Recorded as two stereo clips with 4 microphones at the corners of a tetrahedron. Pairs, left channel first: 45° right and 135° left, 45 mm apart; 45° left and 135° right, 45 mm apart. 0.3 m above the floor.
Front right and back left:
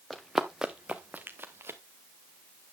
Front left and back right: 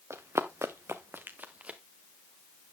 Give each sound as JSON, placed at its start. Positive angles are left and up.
{"t": 0.1, "sound": "running footsteps", "azimuth_deg": -135, "distance_m": 1.5}